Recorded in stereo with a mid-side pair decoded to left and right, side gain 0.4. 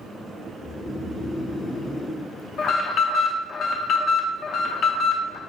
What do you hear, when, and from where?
0.6 s snoring: 40° left, 0.9 m
2.6 s an alarm: 70° left, 0.7 m